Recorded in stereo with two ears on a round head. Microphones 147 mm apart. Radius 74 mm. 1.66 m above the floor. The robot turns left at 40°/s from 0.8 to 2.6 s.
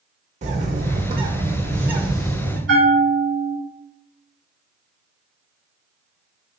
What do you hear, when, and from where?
0.4 s a bird: 125° right, 1.0 m; by 2.6 s 165° left, 1.0 m
2.7 s a bell: 70° right (ahead or behind), 1.4 m